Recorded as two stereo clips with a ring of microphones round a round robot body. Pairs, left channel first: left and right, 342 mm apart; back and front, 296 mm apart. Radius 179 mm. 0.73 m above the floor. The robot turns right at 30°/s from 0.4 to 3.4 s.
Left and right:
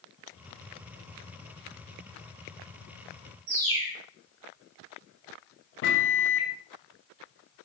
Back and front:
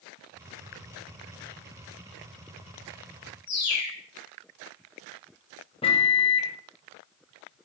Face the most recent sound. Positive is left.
turn(degrees=115)